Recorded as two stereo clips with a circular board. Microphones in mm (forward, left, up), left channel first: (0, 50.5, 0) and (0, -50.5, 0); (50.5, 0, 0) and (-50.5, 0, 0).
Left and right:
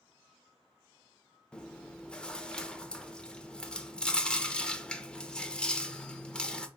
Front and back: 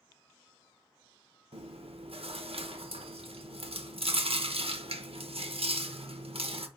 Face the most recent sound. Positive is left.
turn(degrees=170)